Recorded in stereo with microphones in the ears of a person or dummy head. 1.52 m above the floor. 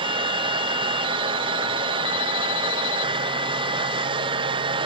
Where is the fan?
25° right (ahead or behind), 0.9 m.